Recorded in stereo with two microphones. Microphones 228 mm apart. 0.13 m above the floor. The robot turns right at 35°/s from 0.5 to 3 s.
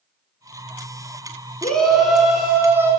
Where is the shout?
5° left (ahead or behind), 1.1 m; by 2.9 s 10° right (ahead or behind), 1.1 m.